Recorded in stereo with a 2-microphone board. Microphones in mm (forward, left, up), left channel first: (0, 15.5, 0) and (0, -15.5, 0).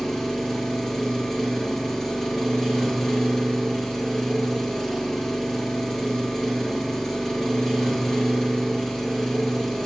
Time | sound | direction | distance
0.0 | an engine running | 15° left (ahead or behind) | 2 m